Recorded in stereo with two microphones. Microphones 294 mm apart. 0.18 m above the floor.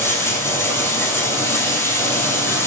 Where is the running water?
5° left (ahead or behind), 2.5 m.